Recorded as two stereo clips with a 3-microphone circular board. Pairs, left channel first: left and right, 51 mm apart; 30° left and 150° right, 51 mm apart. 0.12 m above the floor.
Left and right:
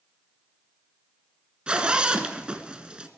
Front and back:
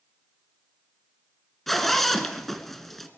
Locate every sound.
1.7 s a zipper: 50° right, 1.5 m